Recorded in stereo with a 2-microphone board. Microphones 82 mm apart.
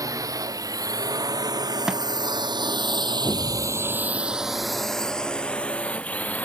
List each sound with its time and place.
0.0 s a drone: 50° right (ahead or behind); by 6.4 s 20° left (ahead or behind)
1.9 s a thud: 10° right (ahead or behind)
3.2 s an explosion: centre (ahead or behind)